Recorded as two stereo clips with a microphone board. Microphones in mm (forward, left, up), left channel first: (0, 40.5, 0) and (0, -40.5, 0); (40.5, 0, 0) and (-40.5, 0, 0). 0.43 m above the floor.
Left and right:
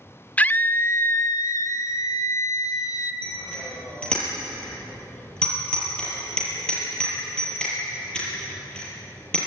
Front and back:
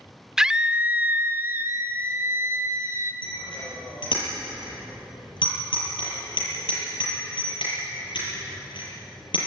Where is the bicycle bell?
10° left, 8 m.